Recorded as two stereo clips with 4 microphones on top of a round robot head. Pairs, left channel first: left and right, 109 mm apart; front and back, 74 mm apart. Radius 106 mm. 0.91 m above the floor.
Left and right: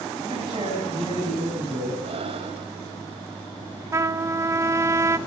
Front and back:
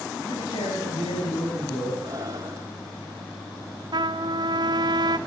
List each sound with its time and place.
0.2 s a man speaking: 35° right, 7.5 m
2.0 s breathing: 125° right, 1.9 m
3.9 s a trumpet: 155° right, 1.0 m